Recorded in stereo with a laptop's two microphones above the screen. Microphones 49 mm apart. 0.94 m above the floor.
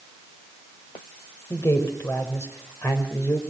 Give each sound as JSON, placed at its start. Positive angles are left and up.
{"t": 1.5, "sound": "a man speaking", "side_deg": 60, "distance_m": 4.0}